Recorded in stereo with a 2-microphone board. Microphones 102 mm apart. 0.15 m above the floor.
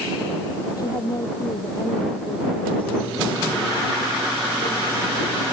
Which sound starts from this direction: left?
A woman speaking, at 0.8 s.